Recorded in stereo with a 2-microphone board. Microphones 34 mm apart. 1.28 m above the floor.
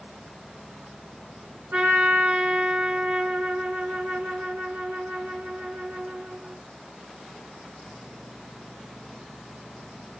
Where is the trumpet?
70° right (ahead or behind), 2.5 m.